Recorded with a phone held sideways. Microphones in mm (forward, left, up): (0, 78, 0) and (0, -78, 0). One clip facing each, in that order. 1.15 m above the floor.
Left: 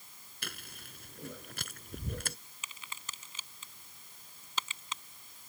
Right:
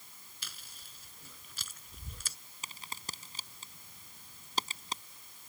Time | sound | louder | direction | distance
0.4 | chewing | left 10 dB | 60° left (ahead or behind) | ?
2.6 | a crack | right 2 dB | 35° right (ahead or behind) | ?